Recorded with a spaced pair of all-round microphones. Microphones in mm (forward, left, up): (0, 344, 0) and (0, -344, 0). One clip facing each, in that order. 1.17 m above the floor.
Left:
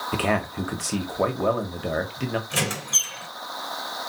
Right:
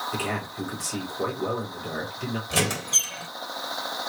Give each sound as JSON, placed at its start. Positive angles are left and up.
{"t": 0.1, "sound": "a man speaking", "side_deg": 80, "distance_m": 1.4}
{"t": 2.5, "sound": "a squeak", "side_deg": -65, "distance_m": 1.7}